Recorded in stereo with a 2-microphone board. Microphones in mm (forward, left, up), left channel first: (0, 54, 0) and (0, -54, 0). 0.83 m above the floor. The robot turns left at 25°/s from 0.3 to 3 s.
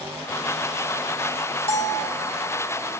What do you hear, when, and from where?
1.7 s a bell: 75° left (ahead or behind), 2 m; by 2.1 s 65° left (ahead or behind), 2 m